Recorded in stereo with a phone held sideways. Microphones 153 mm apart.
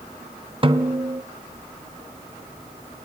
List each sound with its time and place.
0.6 s a snare drum: 35° right (ahead or behind), 0.7 m